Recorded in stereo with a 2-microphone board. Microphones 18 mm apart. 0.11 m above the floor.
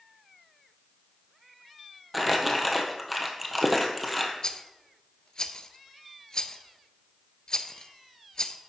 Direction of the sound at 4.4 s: 40° left (ahead or behind).